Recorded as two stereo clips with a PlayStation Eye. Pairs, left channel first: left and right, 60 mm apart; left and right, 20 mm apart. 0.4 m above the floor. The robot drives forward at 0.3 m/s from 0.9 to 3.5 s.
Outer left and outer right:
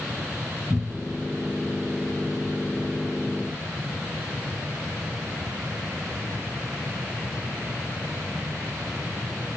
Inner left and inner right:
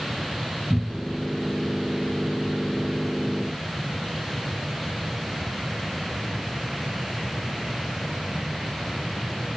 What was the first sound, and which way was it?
A cupboard door, 5° right (ahead or behind).